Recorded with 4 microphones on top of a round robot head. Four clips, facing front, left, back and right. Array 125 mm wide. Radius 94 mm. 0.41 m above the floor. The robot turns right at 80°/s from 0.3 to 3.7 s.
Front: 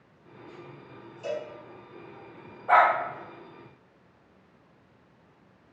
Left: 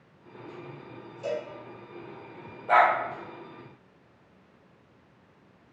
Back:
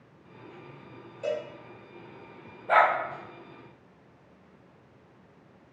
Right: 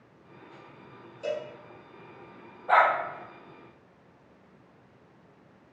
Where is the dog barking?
15° right, 1.1 m; by 2.9 s 5° left, 1.1 m.